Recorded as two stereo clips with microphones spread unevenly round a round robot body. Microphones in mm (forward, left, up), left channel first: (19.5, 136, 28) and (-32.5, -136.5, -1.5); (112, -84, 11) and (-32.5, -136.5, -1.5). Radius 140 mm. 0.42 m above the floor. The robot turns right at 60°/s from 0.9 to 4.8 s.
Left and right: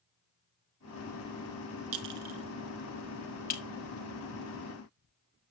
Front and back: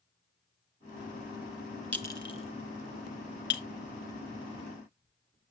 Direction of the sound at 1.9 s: 65° right.